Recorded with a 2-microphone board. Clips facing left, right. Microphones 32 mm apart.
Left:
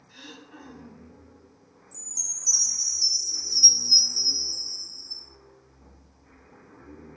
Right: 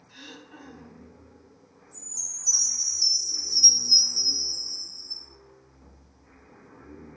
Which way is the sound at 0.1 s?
10° right (ahead or behind).